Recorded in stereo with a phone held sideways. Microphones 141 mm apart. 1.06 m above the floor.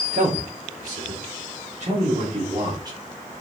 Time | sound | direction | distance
0.1 | a man speaking | 85° right | 3 m